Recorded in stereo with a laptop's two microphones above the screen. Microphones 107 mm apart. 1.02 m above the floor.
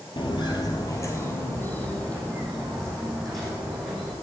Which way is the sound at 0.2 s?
50° left (ahead or behind).